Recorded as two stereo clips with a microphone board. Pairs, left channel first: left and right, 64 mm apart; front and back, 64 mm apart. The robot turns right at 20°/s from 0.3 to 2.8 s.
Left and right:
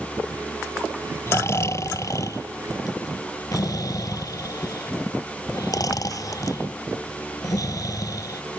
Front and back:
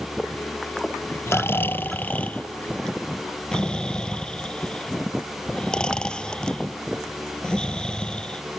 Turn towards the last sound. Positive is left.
turn(degrees=75)